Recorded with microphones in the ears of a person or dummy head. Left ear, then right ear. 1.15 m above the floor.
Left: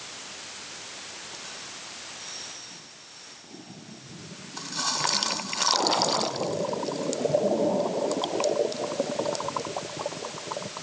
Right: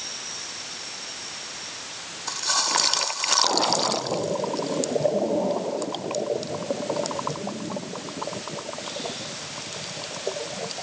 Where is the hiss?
No hiss in this recording.